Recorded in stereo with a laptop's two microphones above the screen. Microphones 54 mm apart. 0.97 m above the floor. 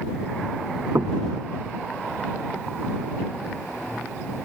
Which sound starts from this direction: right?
Knocking, at 0.9 s.